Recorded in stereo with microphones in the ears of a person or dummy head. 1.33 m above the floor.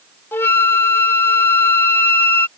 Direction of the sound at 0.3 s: 15° left (ahead or behind).